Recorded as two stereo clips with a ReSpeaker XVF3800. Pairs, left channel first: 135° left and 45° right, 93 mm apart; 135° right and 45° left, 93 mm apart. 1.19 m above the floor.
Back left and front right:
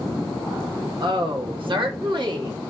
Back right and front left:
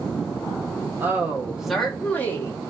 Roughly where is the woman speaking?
Ahead.